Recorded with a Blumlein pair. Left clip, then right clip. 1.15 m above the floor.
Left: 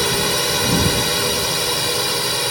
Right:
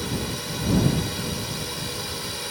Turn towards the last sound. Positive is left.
turn(degrees=30)